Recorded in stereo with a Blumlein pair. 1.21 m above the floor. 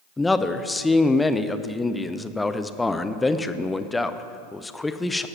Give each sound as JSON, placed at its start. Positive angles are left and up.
{"t": 0.2, "sound": "a man speaking", "azimuth_deg": 10, "distance_m": 0.5}